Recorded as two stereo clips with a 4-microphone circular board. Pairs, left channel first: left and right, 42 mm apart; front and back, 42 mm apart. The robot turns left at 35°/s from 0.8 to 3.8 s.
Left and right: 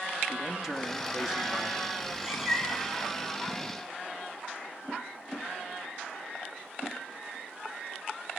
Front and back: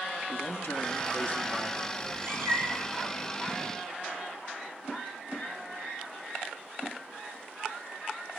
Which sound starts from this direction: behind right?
A cat meowing, at 2.0 s.